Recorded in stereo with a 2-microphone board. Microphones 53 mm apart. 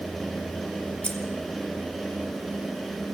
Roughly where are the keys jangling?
Centre.